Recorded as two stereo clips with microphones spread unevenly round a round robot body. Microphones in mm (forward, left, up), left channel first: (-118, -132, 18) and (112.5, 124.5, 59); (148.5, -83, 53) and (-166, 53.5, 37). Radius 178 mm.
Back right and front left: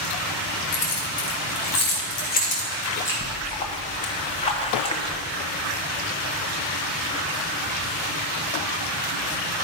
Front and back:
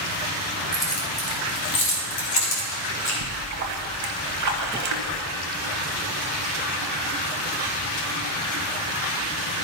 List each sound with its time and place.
0.7 s keys jangling: 115° right, 2.5 m; by 3.1 s 50° right, 3 m
3.2 s a splash: 155° left, 0.8 m